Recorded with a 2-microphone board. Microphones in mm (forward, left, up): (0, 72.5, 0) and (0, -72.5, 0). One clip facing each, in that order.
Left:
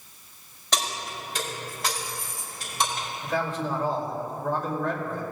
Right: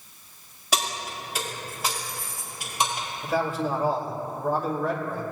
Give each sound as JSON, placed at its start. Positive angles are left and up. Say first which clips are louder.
{"t": 0.7, "sound": "keys jangling", "louder": "right 1 dB", "side_deg": -5, "distance_m": 2.5}
{"t": 3.2, "sound": "a man speaking", "louder": "right 3 dB", "side_deg": -10, "distance_m": 2.5}